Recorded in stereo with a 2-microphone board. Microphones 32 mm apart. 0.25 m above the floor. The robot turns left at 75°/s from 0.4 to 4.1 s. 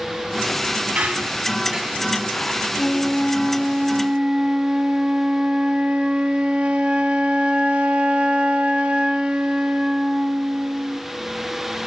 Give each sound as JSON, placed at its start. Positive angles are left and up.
{"t": 0.9, "sound": "a squeak", "side_deg": -55, "distance_m": 1.5}
{"t": 2.8, "sound": "a flute", "azimuth_deg": 60, "distance_m": 0.7}